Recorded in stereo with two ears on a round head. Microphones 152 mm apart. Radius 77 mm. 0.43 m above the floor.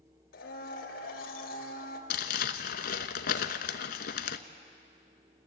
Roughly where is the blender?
Left.